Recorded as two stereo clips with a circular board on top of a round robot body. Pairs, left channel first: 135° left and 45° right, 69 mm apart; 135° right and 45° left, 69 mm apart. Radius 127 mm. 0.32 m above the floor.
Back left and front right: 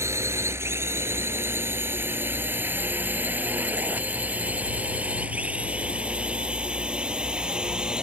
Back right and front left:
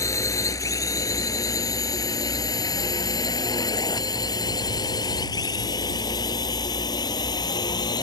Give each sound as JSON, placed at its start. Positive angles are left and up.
{"t": 0.0, "sound": "a drone", "azimuth_deg": -95}